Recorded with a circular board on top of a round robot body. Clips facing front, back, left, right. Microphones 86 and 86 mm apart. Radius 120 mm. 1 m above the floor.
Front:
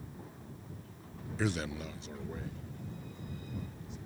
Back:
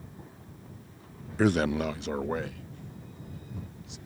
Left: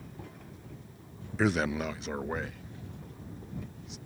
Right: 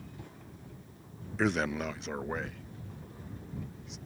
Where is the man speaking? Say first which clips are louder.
Back 11 dB, left 2 dB; 175° left; by 4.0 s straight behind.